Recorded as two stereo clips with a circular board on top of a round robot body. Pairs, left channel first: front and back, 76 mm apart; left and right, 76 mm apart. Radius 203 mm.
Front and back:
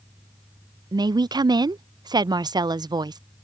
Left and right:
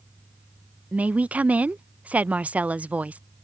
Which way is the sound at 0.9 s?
160° right.